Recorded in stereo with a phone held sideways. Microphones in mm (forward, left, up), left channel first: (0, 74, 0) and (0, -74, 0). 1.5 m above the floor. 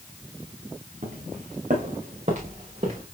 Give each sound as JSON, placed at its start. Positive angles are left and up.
{"t": 1.0, "sound": "footsteps", "side_deg": -60, "distance_m": 5.0}